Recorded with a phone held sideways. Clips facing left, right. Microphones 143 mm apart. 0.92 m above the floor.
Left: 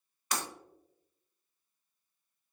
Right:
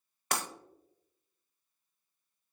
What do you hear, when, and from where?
0.3 s breaking glass: 60° right (ahead or behind), 0.6 m